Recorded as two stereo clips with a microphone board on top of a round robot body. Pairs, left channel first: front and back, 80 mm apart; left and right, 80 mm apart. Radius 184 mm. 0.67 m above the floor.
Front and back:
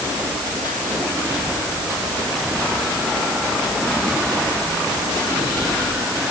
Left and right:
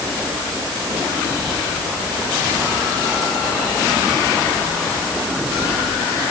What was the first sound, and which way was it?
Only background noise.